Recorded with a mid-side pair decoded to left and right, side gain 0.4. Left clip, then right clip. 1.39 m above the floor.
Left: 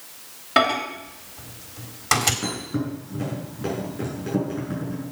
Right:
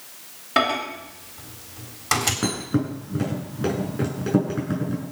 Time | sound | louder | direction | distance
0.6 | a microwave | left 2 dB | 15° left | 3.5 m
2.4 | a thud | right 3 dB | 50° right | 6.5 m